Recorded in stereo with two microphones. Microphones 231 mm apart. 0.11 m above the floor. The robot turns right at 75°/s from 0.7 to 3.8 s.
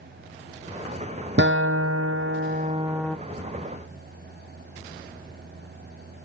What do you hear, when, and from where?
1.4 s a guitar: 130° right, 0.9 m; by 3.2 s 5° left, 0.9 m